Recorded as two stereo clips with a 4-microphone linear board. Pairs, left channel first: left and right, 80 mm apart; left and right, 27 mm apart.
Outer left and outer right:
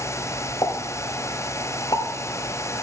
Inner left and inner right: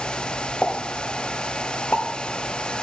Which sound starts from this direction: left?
A pop, at 0.6 s.